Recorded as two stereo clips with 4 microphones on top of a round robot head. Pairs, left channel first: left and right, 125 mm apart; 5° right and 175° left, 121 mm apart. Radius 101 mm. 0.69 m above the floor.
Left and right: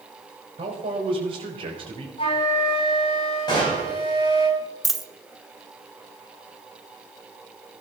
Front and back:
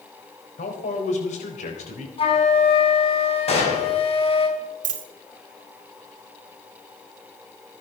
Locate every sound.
0.6 s a man speaking: 35° right, 3.5 m
2.2 s a flute: 35° left, 4.5 m
3.5 s a gunshot: 30° left, 6 m
4.8 s a dropped coin: straight behind, 1.1 m